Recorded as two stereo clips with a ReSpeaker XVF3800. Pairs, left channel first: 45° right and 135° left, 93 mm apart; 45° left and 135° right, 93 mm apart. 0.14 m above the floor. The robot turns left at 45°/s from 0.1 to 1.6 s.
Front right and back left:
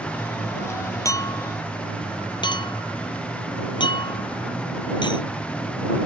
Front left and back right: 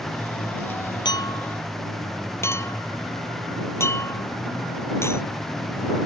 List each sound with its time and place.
1.1 s a clink: 10° left; by 5.2 s 15° right